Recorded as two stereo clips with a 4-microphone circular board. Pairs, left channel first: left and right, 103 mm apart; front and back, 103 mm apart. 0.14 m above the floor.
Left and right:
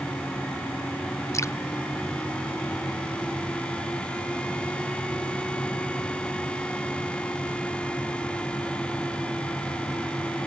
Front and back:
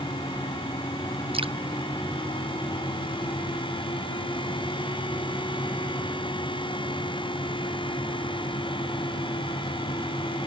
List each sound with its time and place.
1.3 s dripping: 150° left